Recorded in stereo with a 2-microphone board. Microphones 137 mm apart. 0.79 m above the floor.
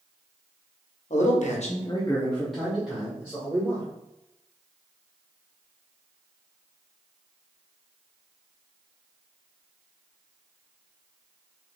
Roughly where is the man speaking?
Left.